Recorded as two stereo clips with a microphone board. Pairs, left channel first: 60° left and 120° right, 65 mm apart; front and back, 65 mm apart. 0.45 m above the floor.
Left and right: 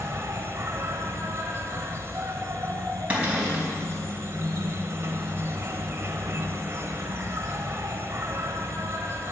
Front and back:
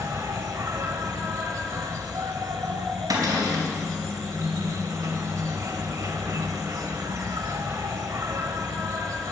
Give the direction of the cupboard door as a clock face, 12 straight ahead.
6 o'clock.